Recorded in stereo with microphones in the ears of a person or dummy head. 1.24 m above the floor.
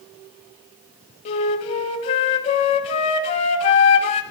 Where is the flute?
40° left (ahead or behind), 1.4 m.